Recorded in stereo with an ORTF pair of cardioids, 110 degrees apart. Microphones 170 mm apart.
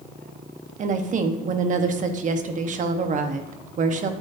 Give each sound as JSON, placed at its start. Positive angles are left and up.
{"t": 0.8, "sound": "a woman speaking", "azimuth_deg": -50, "distance_m": 1.3}